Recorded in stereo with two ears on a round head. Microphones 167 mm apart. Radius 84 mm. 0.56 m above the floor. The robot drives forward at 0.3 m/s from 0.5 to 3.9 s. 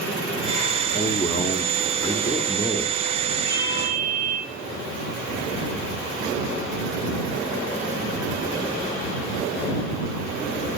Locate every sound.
0.9 s a man speaking: 15° left (ahead or behind), 0.6 m
3.5 s a ringtone: 25° right (ahead or behind), 6 m